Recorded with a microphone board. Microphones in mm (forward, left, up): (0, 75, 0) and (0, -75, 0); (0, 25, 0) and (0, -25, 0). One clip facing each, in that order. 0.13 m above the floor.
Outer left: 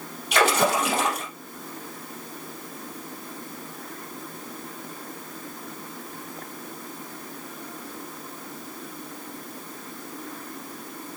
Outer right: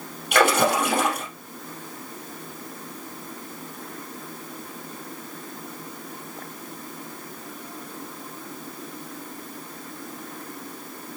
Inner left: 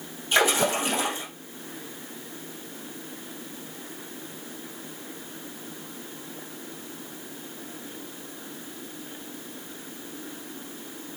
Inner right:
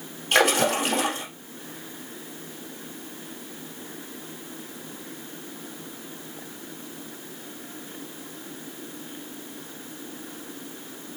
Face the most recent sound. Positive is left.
turn(degrees=-60)  # may be behind; listen again after turning